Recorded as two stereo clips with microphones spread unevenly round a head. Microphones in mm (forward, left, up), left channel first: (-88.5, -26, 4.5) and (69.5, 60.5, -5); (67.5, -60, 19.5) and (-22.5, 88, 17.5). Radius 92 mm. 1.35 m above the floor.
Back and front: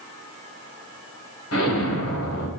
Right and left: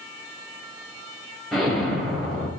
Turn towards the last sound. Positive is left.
turn(degrees=-145)